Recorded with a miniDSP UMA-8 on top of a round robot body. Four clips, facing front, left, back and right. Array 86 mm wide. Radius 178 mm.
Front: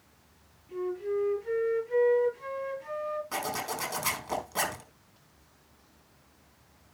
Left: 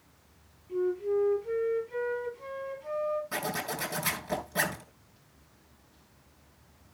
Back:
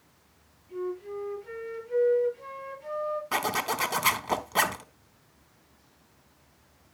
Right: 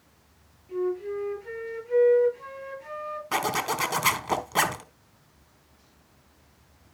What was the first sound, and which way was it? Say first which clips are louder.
A flute: even, front 3 dB; 60° right.